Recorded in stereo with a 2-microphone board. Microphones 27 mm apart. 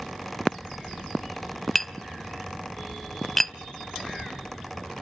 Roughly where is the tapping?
Centre.